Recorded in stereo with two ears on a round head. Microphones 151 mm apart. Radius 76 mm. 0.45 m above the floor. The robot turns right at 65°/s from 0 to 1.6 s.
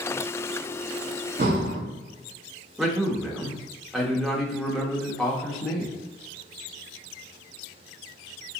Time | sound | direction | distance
1.4 | breathing | 50° right (ahead or behind) | 1.0 m
2.8 | a man speaking | centre (ahead or behind) | 0.7 m